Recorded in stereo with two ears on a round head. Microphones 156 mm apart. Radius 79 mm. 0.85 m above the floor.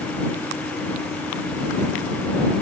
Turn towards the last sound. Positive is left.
No sound to turn to.